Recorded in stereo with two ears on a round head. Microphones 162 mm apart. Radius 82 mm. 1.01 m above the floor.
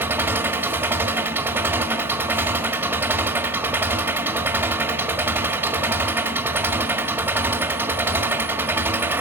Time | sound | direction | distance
0.0 | an engine running | 10° right (ahead or behind) | 1.5 m